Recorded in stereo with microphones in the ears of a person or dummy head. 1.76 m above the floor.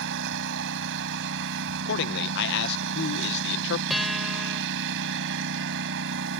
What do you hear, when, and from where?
0.0 s a lawn mower: 60° right (ahead or behind)
1.9 s a man speaking: 60° left (ahead or behind)
3.9 s a guitar: centre (ahead or behind)